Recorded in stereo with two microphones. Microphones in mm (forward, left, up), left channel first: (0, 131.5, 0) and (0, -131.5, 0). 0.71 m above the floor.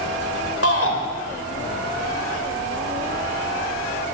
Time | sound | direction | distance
0.6 | a shout | 60° left (ahead or behind) | 3.5 m